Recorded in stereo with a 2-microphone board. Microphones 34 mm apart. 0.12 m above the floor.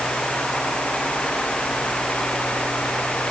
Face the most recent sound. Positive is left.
No sound to turn to.